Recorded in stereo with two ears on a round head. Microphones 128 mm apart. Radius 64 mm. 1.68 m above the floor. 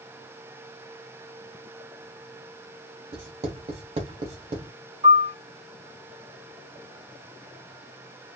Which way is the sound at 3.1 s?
45° right (ahead or behind).